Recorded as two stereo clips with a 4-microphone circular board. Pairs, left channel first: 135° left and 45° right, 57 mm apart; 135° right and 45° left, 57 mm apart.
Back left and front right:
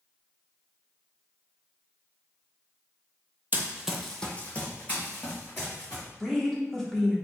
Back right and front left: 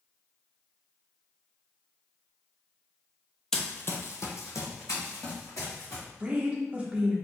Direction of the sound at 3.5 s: 60° right.